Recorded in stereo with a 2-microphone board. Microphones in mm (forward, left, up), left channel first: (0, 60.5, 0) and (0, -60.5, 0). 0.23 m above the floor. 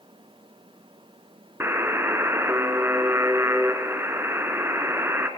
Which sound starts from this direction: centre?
A buzzer, at 1.6 s.